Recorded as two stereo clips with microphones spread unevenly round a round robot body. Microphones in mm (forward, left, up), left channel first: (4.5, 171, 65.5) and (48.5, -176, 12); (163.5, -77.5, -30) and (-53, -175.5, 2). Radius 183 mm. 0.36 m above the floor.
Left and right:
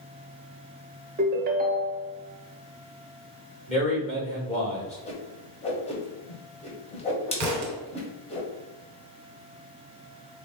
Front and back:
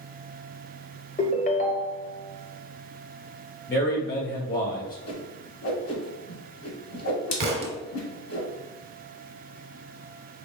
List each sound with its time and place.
1.2 s a ringtone: 25° right, 0.6 m
3.7 s a man speaking: 20° left, 1.4 m
5.1 s a whoosh: 20° left, 0.9 m
7.4 s a thud: 120° right, 0.9 m